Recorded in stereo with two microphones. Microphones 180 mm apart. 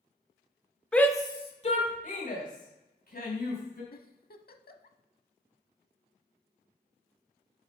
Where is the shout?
5° left (ahead or behind), 1.1 m; by 3.8 s 65° left (ahead or behind), 4 m.